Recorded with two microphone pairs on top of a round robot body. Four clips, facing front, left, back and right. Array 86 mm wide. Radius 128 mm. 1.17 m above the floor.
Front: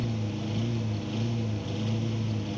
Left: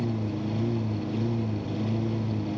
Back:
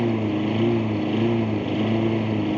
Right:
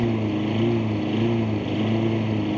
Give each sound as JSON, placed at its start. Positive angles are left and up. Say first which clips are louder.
{"t": 0.0, "sound": "a lawn mower", "louder": "right 7 dB, back 11 dB", "azimuth_deg": -150}